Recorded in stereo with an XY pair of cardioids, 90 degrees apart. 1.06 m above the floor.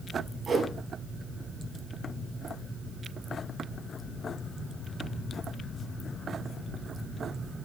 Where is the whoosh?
50° right, 7.5 m.